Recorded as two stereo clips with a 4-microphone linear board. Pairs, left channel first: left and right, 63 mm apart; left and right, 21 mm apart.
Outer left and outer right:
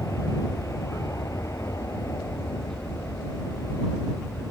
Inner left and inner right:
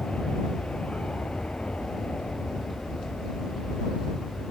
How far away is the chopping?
I don't hear chopping.